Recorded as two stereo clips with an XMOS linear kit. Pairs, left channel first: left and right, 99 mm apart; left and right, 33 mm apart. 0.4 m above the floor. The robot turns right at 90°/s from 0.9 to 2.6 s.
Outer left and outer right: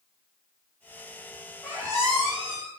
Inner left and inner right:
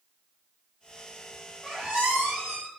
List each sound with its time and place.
1.6 s a squeak: 165° right, 1.7 m; by 2.7 s 80° right, 1.7 m